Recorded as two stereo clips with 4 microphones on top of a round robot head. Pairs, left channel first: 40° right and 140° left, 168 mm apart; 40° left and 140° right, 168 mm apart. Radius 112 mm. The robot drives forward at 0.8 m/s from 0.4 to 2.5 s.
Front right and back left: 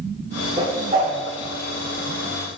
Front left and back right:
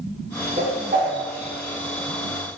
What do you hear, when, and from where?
0.6 s a whoosh: 170° right, 1.1 m; by 1.1 s 175° right, 1.4 m